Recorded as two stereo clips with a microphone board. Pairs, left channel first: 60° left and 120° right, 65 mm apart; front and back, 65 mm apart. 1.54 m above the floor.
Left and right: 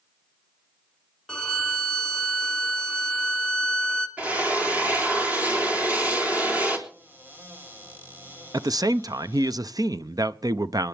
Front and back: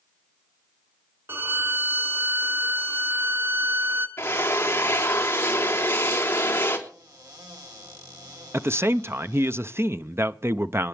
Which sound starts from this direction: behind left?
A violin, at 1.3 s.